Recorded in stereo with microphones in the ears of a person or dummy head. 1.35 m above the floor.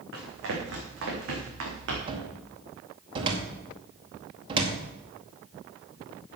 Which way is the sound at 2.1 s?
35° right (ahead or behind).